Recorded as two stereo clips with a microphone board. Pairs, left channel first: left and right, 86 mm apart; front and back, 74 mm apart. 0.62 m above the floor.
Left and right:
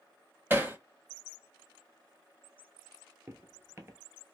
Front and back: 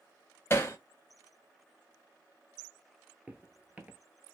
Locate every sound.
0.5 s hammering: 35° right, 0.7 m
3.3 s footsteps: 120° right, 0.7 m